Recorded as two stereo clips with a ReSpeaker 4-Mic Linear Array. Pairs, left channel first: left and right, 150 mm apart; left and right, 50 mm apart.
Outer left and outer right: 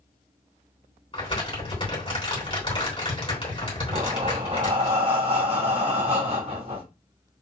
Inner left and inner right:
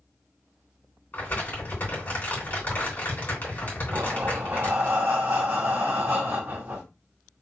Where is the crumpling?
35° left (ahead or behind), 3.5 m.